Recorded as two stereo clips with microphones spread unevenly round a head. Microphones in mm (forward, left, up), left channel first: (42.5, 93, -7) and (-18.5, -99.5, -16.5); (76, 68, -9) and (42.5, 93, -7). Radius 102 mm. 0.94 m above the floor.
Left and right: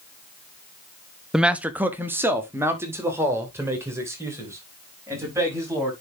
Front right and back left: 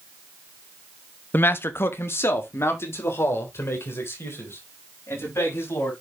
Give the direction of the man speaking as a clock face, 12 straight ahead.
1 o'clock.